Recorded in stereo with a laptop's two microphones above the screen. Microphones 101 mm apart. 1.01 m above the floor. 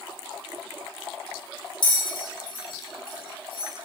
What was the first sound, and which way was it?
A bell, 50° left (ahead or behind).